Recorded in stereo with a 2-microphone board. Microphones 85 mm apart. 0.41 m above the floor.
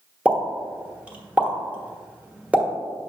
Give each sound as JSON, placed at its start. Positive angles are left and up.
{"t": 0.2, "sound": "a pop", "side_deg": -15, "distance_m": 1.1}